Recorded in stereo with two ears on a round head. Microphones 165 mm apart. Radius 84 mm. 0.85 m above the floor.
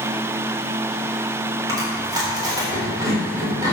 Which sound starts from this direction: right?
Chewing, at 1.7 s.